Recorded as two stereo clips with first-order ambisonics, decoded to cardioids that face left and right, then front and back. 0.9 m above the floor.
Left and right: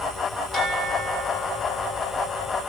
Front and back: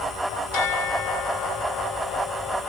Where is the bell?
10° left, 2 m.